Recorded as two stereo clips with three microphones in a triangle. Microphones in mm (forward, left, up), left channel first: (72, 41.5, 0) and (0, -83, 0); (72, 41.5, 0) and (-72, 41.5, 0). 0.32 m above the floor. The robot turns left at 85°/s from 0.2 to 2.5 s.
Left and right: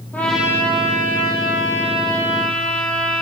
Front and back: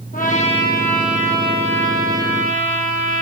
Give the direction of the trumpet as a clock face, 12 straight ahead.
1 o'clock.